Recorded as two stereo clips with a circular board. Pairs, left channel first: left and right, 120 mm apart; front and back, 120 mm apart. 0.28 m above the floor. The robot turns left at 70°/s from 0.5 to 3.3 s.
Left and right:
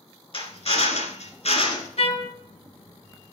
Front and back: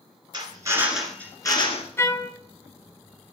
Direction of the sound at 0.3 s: 130° left.